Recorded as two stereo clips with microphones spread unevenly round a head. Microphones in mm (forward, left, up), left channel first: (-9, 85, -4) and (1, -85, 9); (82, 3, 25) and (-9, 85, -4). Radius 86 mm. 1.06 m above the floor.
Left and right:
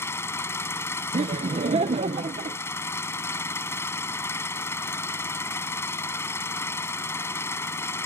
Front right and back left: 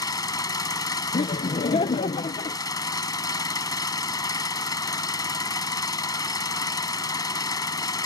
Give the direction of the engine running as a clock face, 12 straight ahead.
11 o'clock.